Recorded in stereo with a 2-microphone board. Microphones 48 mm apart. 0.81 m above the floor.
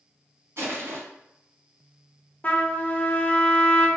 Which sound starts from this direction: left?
A trumpet, at 2.4 s.